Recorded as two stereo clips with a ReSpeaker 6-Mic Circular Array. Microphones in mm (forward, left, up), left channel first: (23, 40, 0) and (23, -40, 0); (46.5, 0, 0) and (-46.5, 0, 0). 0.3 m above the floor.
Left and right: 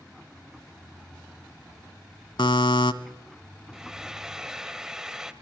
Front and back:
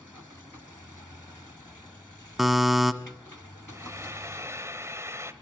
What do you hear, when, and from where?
2.4 s a buzzer: 95° left, 1.1 m
3.7 s frying: 165° right, 1.2 m